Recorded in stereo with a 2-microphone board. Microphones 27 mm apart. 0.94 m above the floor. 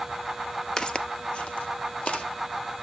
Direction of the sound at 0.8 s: 20° left (ahead or behind).